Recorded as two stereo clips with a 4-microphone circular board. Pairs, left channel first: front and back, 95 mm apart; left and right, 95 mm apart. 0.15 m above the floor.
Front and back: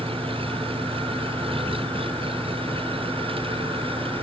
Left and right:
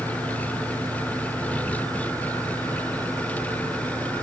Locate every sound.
0.0 s an engine running: 165° left